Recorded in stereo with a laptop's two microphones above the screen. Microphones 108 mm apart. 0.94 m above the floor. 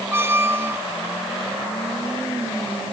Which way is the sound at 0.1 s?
20° right (ahead or behind).